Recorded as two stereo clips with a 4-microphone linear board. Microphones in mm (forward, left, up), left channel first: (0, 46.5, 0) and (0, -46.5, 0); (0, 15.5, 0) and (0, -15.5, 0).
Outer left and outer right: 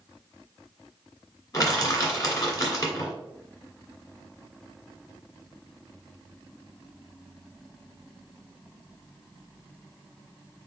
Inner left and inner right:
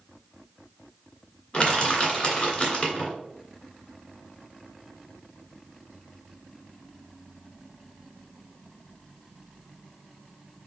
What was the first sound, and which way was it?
Crushing, 35° left (ahead or behind).